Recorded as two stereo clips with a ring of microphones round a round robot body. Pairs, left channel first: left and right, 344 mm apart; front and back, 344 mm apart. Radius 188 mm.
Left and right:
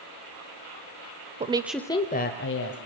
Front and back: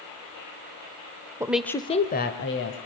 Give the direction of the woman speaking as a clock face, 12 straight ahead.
4 o'clock.